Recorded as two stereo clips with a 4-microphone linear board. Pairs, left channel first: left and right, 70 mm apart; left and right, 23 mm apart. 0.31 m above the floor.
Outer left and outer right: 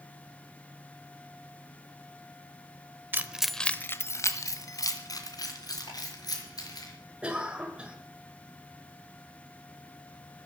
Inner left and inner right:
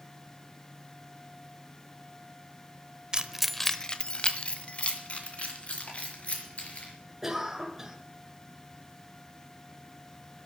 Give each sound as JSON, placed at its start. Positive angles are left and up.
{"t": 3.1, "sound": "keys jangling", "side_deg": -25, "distance_m": 1.0}
{"t": 5.9, "sound": "ticking", "side_deg": 70, "distance_m": 9.0}
{"t": 7.2, "sound": "a cough", "side_deg": -15, "distance_m": 1.4}